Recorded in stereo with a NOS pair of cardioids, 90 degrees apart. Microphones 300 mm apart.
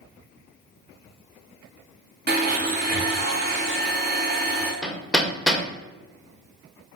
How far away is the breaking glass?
No breaking glass in this recording.